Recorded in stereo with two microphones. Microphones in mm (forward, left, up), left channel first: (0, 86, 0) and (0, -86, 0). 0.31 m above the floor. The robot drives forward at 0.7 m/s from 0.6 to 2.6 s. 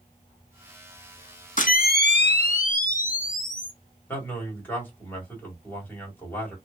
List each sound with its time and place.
1.6 s a camera shutter: 50° left (ahead or behind), 0.6 m; by 3.7 s 55° left (ahead or behind), 0.6 m
4.1 s a man speaking: 10° left (ahead or behind), 2.0 m